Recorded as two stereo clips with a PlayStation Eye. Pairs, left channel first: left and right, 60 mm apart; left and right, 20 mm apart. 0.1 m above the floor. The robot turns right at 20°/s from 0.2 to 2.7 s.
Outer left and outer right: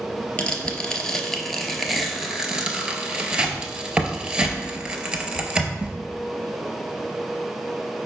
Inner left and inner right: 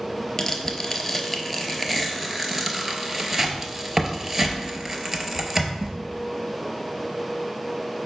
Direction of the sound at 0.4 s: 20° left (ahead or behind).